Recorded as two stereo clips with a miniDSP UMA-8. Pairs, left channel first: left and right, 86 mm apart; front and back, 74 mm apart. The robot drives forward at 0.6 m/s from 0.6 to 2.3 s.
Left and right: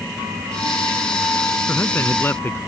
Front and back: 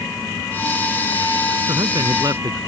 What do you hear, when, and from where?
1.7 s a man speaking: 155° left